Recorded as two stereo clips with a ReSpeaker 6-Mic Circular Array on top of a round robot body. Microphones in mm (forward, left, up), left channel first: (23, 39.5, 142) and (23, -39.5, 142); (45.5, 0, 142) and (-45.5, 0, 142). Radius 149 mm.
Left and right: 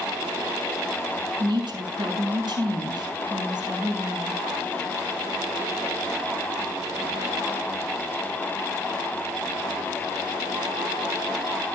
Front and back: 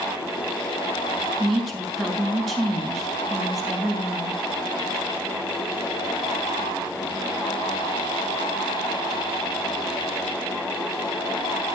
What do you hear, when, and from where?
1.4 s a woman speaking: 90° right, 5 m